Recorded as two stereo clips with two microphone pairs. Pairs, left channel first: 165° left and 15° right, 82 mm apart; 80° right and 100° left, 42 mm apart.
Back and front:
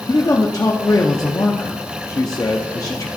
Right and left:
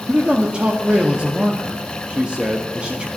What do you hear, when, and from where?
0.1 s a man speaking: 155° left, 0.7 m